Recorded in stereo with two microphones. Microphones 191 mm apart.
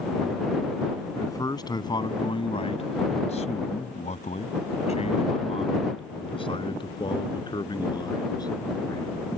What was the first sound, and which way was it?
A man speaking, 20° left (ahead or behind).